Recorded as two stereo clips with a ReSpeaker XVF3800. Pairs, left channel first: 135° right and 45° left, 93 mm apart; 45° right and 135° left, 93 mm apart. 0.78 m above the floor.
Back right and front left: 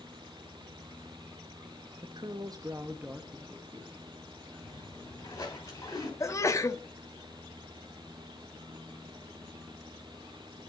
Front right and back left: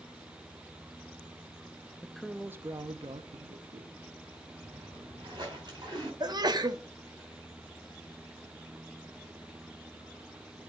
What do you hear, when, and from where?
2.0 s a woman speaking: 30° left, 0.7 m; by 3.9 s 140° left, 1.3 m
4.6 s a splash: 175° left, 4 m
6.2 s a sneeze: 170° left, 1.1 m